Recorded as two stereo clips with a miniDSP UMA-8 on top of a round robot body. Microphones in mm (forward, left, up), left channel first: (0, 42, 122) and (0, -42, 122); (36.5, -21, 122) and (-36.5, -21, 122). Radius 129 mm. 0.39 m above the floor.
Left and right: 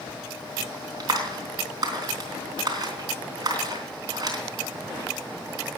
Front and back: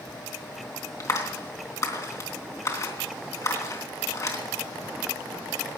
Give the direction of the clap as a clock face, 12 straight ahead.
2 o'clock.